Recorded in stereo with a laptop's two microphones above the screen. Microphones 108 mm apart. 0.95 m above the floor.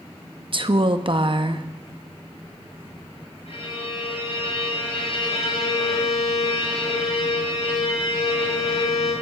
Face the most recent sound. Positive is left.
turn(degrees=75)  # may be behind; listen again after turning